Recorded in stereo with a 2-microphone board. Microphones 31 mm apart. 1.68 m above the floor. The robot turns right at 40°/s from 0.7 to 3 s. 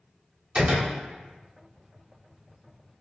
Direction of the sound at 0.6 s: 40° right (ahead or behind).